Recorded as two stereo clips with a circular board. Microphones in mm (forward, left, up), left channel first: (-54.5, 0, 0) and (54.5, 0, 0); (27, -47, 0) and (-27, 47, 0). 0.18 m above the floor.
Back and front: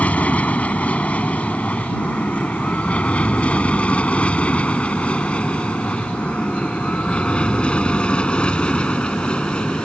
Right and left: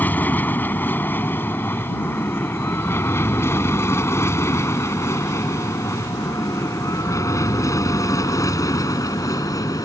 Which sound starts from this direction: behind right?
An aircraft, at 0.0 s.